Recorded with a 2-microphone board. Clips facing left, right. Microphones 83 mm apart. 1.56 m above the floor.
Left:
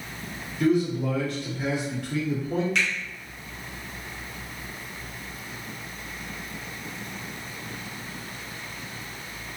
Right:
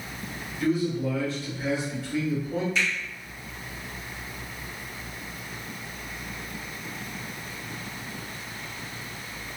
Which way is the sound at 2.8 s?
70° left (ahead or behind).